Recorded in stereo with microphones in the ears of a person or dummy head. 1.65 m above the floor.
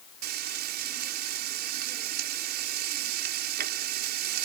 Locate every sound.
0.2 s frying: 50° right (ahead or behind)